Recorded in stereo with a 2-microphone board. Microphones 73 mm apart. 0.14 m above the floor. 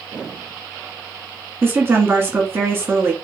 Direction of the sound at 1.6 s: 30° right (ahead or behind).